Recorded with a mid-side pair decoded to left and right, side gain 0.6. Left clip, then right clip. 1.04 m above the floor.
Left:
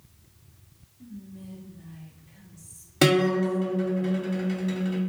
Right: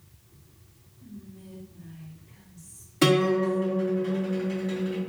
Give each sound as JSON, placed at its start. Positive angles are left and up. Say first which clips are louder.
{"t": 1.0, "sound": "whispering", "louder": "left 2 dB", "azimuth_deg": 40, "distance_m": 2.5}
{"t": 3.0, "sound": "a guitar", "louder": "even", "azimuth_deg": 55, "distance_m": 2.0}